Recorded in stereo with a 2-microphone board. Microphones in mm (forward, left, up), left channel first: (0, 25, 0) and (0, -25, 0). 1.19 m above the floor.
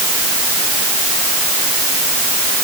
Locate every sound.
Only background noise.